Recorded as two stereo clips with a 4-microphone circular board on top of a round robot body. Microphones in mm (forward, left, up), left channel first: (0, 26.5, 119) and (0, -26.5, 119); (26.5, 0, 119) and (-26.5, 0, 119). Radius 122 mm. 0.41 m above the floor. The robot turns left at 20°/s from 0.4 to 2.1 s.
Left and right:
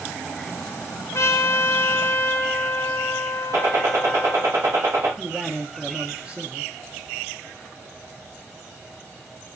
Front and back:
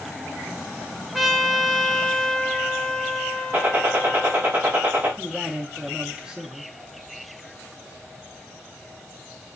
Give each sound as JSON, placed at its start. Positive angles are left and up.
{"t": 1.1, "sound": "a trumpet", "azimuth_deg": 90, "distance_m": 0.6}
{"t": 3.5, "sound": "a gunshot", "azimuth_deg": -125, "distance_m": 0.9}
{"t": 5.2, "sound": "a man speaking", "azimuth_deg": -125, "distance_m": 0.8}